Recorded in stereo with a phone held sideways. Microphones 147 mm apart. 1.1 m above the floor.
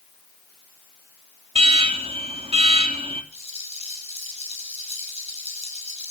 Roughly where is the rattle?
Right.